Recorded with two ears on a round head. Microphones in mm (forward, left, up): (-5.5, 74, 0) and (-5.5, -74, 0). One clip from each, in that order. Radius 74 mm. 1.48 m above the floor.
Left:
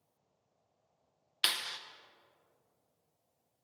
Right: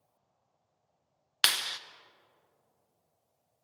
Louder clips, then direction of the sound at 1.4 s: Right 5 dB; 15° right (ahead or behind).